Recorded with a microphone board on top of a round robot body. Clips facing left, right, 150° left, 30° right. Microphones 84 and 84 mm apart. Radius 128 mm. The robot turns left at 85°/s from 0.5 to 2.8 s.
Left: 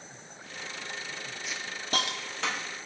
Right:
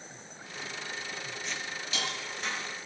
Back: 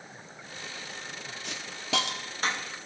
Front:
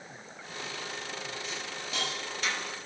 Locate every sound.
1.4 s a hiss: straight behind, 1.1 m; by 2.8 s 70° left, 1.1 m